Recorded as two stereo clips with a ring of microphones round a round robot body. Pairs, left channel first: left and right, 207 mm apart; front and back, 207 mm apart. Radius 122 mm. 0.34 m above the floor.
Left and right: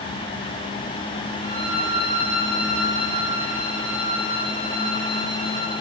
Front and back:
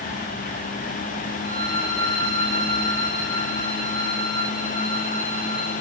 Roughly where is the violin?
Behind right.